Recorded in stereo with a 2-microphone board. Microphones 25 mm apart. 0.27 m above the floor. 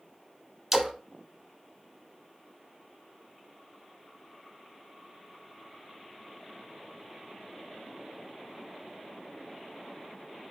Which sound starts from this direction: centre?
A splash, at 0.7 s.